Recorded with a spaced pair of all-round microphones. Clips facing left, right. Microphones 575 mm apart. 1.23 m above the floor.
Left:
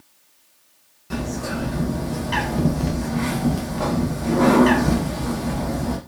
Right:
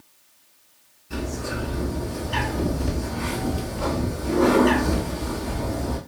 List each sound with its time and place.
1.1 s a bird: 85° left, 1.1 m